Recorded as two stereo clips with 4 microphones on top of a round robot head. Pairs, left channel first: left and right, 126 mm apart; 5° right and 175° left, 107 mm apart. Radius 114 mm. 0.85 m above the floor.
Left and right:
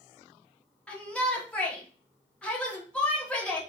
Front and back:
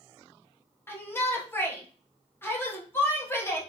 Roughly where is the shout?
Ahead.